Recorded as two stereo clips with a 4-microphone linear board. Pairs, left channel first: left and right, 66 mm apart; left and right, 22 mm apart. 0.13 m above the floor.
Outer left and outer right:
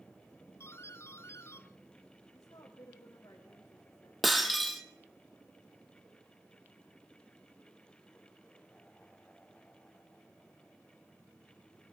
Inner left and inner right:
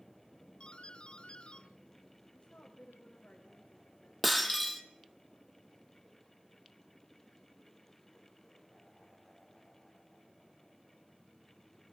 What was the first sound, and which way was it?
A doorbell, 40° left (ahead or behind).